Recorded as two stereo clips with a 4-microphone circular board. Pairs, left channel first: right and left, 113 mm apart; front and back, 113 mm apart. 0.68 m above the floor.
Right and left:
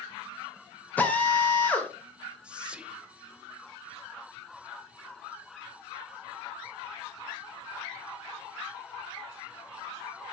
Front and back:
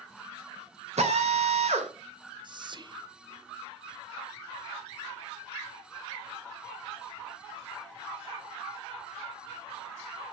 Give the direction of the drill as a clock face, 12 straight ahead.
6 o'clock.